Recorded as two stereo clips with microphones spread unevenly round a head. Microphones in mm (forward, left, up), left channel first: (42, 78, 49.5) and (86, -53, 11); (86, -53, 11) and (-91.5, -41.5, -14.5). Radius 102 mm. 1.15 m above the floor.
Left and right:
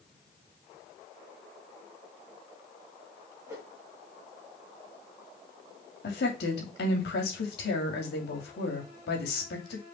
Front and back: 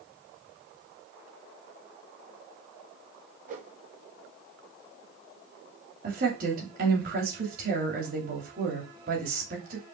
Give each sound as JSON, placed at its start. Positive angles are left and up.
{"t": 3.5, "sound": "a whoosh", "azimuth_deg": -140, "distance_m": 2.0}
{"t": 6.0, "sound": "a woman speaking", "azimuth_deg": 130, "distance_m": 2.5}